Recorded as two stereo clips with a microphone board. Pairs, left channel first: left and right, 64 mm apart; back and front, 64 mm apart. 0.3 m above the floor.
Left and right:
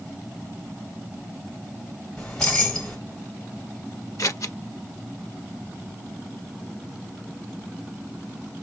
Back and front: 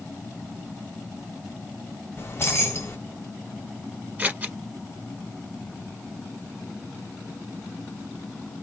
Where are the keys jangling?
155° left, 0.9 m.